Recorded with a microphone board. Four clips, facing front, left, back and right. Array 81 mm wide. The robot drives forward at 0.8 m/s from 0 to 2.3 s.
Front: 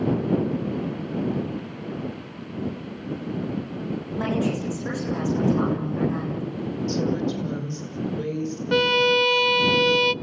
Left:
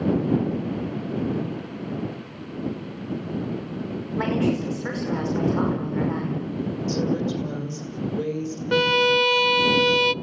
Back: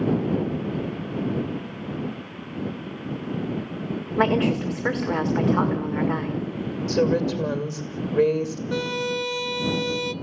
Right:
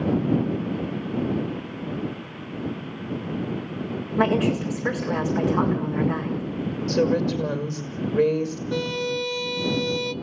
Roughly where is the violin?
Ahead left.